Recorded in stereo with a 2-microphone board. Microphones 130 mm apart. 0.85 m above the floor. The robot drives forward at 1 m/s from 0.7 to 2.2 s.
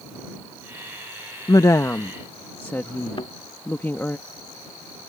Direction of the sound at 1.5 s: 30° left (ahead or behind).